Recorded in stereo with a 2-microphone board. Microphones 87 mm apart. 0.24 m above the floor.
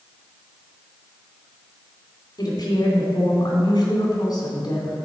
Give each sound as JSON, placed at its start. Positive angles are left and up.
{"t": 2.4, "sound": "a woman speaking", "side_deg": 55, "distance_m": 2.5}